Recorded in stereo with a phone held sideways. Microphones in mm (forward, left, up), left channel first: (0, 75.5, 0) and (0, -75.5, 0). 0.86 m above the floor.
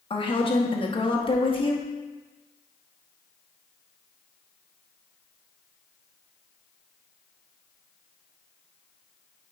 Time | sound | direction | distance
0.1 | a woman speaking | 35° left (ahead or behind) | 1.0 m